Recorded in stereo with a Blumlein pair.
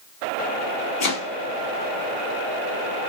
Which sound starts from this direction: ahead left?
Chopping, at 1.0 s.